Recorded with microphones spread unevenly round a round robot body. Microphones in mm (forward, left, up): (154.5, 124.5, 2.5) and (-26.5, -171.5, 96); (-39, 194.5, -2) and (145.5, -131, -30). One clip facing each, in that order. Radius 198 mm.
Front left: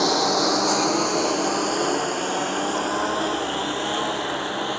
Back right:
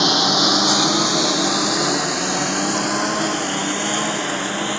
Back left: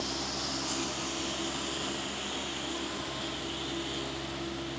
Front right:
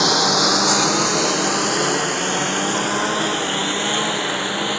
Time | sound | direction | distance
0.0 | a lawn mower | 70° right | ?